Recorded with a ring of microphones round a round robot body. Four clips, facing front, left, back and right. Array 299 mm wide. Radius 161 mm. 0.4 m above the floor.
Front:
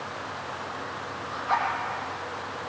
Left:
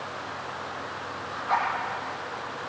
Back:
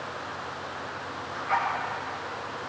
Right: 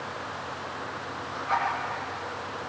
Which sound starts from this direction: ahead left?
A zipper, at 1.3 s.